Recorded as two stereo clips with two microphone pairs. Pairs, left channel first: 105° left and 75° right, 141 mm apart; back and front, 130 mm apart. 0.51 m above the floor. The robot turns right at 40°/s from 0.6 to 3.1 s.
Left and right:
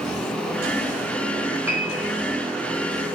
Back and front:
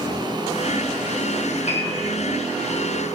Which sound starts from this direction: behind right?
A piano, at 1.7 s.